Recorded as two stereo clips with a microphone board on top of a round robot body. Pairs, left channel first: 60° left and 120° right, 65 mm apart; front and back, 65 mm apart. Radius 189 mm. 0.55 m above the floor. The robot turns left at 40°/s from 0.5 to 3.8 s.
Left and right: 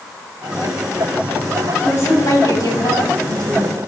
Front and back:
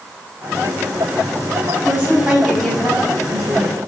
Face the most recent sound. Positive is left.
turn(degrees=40)